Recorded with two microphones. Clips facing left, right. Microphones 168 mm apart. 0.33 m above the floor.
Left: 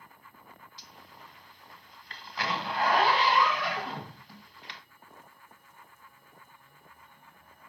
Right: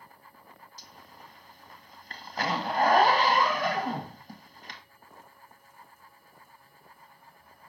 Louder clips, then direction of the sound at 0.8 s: Right 1 dB; 45° right (ahead or behind).